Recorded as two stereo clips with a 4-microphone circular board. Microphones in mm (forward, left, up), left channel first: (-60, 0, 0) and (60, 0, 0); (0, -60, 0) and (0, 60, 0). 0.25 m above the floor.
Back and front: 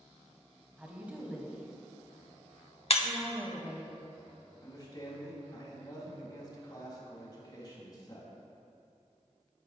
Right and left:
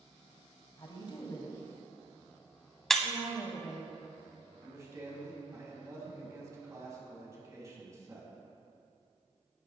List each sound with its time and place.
0.8 s a woman speaking: 75° right, 1.2 m
2.9 s breaking glass: 175° right, 0.6 m
4.6 s a man speaking: 140° left, 2.0 m